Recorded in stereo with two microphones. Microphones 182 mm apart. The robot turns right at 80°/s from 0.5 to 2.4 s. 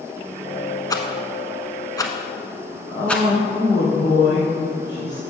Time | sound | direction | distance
0.9 | a rattle | 20° left (ahead or behind) | 1.0 m
2.9 | a woman speaking | 20° left (ahead or behind) | 2.5 m